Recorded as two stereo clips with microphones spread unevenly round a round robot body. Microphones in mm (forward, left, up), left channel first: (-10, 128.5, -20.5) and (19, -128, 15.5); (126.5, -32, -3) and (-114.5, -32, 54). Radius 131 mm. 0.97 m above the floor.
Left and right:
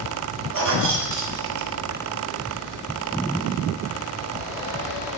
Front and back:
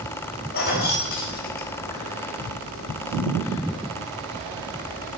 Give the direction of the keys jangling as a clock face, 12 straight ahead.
2 o'clock.